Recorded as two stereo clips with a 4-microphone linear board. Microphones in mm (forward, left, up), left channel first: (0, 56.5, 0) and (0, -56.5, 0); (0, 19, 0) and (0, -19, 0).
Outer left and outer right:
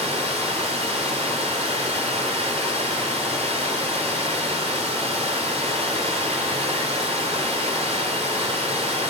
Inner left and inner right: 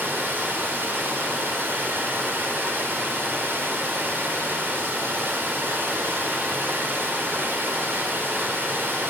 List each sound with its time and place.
0.0 s running water: 75° right (ahead or behind), 2.5 m